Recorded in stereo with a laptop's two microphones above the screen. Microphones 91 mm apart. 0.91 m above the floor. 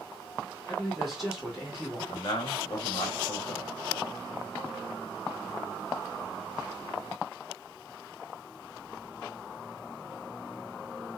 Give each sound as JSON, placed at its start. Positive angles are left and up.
{"t": 0.7, "sound": "a man speaking", "side_deg": 0, "distance_m": 1.5}
{"t": 2.1, "sound": "a man speaking", "side_deg": 45, "distance_m": 1.0}